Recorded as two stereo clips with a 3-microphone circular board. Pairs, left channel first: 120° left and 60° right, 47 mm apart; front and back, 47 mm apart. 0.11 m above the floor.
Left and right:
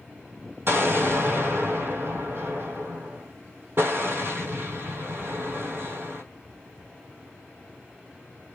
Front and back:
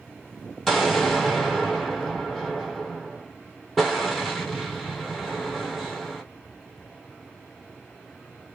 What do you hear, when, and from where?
0.7 s an explosion: 90° right, 1.0 m